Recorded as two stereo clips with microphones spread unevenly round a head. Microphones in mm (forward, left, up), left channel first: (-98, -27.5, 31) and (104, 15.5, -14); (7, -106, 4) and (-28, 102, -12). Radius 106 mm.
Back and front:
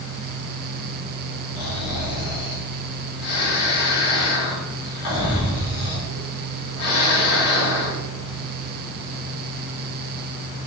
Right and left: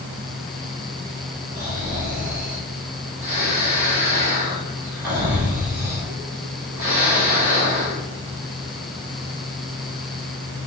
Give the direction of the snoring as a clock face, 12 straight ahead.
6 o'clock.